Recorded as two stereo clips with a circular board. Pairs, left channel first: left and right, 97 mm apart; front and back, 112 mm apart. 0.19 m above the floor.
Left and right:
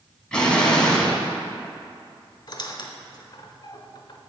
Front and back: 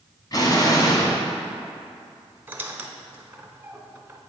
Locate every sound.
0.3 s an explosion: 15° left, 1.1 m
2.5 s a squeak: 110° left, 0.7 m